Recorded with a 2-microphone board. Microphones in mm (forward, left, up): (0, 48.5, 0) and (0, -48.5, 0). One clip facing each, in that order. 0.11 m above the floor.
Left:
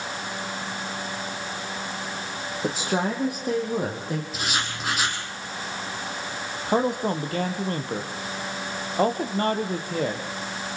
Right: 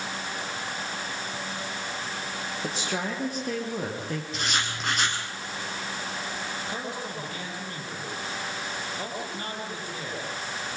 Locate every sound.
2.6 s a woman speaking: 20° left (ahead or behind), 3.5 m; by 4.2 s 10° left (ahead or behind), 3.5 m
4.3 s writing: 5° left (ahead or behind), 3 m
6.7 s a man speaking: 50° left (ahead or behind), 3 m